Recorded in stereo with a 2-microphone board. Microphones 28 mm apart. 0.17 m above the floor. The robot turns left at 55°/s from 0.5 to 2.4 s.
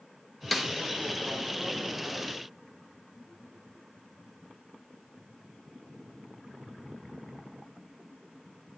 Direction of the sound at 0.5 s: Centre (ahead or behind).